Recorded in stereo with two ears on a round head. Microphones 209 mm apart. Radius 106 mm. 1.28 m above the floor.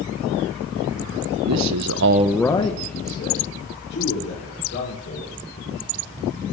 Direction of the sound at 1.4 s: 85° right.